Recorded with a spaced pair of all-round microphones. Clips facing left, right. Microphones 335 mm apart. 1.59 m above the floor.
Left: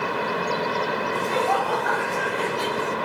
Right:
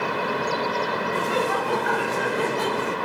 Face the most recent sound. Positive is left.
turn(degrees=-70)  # may be behind; listen again after turning